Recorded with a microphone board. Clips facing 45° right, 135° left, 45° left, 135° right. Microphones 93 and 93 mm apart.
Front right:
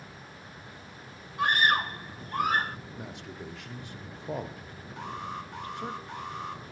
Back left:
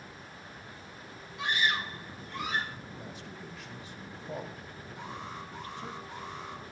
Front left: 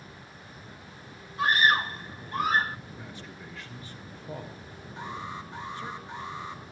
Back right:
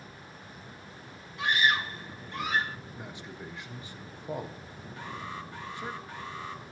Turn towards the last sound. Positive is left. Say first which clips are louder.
# front right 5 dB, front left 2 dB
turn(degrees=-20)